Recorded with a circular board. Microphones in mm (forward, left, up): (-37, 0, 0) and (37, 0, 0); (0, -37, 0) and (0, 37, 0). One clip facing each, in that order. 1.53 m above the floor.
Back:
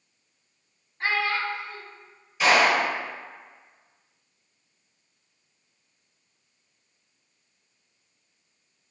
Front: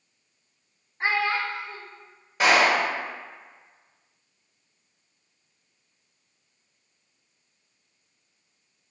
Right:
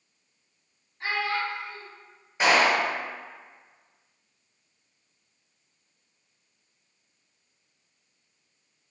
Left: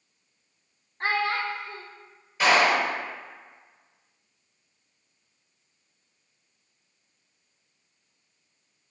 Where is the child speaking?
65° left, 0.6 m.